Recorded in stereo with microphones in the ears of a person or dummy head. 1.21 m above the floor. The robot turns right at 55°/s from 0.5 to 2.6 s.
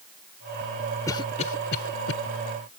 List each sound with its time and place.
1.1 s a cough: 15° left (ahead or behind); by 2.1 s 75° left (ahead or behind)